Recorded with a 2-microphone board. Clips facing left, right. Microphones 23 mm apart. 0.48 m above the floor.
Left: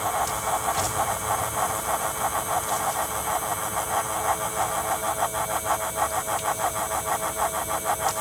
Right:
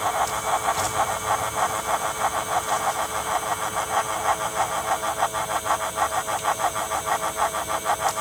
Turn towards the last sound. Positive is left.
No sound to turn to.